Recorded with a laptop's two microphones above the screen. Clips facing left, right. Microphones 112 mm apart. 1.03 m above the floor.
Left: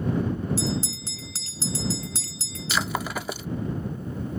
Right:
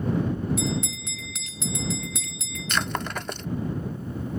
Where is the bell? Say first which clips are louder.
Even; 35° left (ahead or behind).